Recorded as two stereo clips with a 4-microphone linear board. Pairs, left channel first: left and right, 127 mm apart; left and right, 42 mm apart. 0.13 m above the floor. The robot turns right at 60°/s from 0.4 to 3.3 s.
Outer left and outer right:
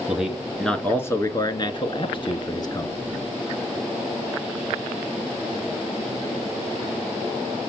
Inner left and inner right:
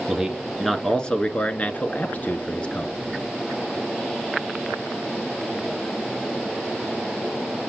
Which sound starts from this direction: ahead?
A man speaking, at 0.1 s.